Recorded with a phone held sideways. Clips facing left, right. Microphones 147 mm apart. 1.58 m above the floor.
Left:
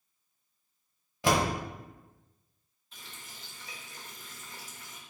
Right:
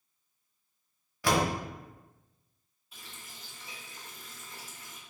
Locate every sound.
1.2 s a door slam: 20° left (ahead or behind), 0.9 m
2.9 s a running tap: 10° right (ahead or behind), 1.2 m